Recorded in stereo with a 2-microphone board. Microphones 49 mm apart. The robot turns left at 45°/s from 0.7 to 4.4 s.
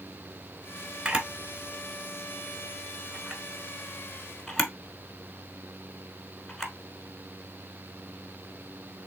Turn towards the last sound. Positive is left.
turn(degrees=5)  # may be behind; listen again after turning